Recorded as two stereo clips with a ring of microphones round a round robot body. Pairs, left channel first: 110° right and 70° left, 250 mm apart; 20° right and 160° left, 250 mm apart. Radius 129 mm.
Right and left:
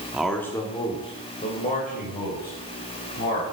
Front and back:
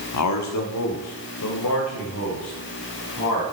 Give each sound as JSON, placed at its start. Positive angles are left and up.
{"t": 0.1, "sound": "a man speaking", "azimuth_deg": -20, "distance_m": 1.2}